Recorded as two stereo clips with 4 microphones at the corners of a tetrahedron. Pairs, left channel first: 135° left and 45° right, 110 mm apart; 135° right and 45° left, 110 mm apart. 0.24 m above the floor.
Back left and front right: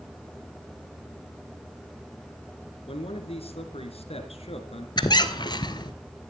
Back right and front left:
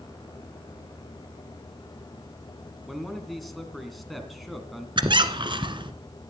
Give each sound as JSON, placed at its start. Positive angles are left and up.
{"t": 2.9, "sound": "a man speaking", "azimuth_deg": 135, "distance_m": 2.5}
{"t": 5.0, "sound": "a squeak", "azimuth_deg": 90, "distance_m": 1.2}